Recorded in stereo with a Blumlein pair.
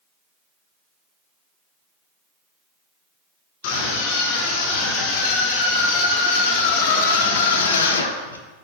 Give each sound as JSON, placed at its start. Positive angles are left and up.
{"t": 3.6, "sound": "a scream", "azimuth_deg": 50, "distance_m": 3.5}